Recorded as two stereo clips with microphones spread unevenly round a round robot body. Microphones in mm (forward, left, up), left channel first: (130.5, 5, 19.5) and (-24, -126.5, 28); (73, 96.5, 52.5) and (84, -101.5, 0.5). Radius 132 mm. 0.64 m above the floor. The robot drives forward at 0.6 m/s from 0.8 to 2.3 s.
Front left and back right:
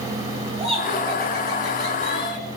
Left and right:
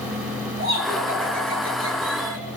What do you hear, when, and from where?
0.6 s laughter: 80° right, 6 m; by 2.5 s 85° right, 6 m